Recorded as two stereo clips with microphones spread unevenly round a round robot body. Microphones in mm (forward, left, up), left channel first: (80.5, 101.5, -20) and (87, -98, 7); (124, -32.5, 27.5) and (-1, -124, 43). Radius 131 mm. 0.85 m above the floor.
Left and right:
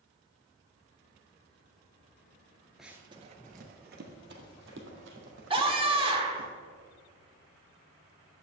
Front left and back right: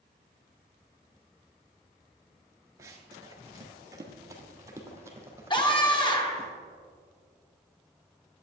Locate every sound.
2.8 s running footsteps: 160° right, 0.8 m; by 6.5 s 70° right, 3.5 m
5.5 s a scream: 25° right, 2 m